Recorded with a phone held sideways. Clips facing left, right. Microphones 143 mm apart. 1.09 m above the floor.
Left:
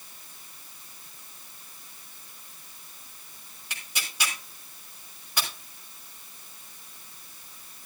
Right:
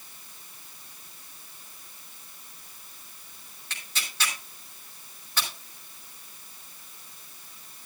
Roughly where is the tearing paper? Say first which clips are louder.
Even; centre.